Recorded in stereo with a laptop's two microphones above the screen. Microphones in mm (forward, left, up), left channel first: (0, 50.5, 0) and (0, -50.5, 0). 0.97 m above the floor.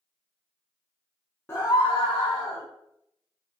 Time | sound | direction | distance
1.5 | a scream | 25° left (ahead or behind) | 0.5 m